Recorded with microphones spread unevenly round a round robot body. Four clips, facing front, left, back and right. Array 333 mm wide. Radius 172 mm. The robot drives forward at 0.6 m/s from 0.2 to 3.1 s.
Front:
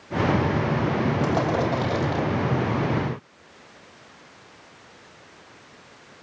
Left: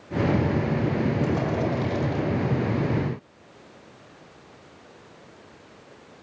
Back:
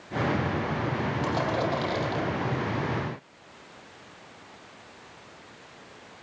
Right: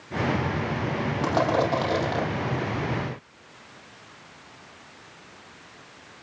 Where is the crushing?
70° right, 8 m; by 2.2 s 75° right, 8 m.